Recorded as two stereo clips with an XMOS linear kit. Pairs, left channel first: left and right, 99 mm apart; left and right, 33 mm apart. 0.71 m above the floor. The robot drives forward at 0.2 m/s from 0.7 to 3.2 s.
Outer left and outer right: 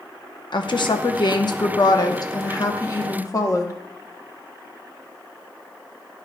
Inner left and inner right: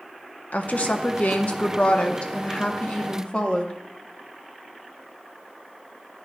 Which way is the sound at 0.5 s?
50° left (ahead or behind).